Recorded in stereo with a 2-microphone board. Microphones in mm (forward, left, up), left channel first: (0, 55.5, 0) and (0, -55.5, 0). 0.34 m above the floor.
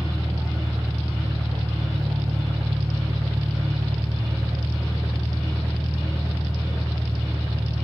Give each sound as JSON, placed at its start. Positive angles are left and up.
{"t": 0.0, "sound": "an engine running", "side_deg": -30, "distance_m": 1.1}